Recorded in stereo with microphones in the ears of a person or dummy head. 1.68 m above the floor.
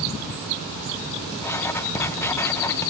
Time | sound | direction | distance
1.4 | writing | 15° left (ahead or behind) | 1.1 m